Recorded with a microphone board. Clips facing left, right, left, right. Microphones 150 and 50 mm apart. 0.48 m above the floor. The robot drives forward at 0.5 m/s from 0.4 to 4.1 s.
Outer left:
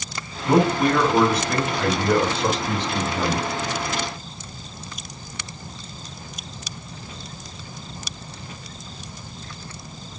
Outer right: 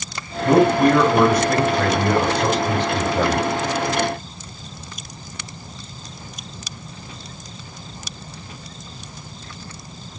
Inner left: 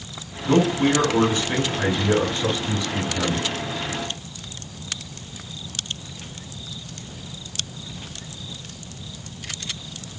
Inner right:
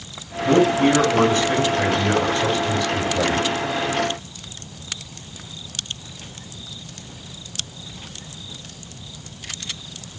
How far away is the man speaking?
About 3 m.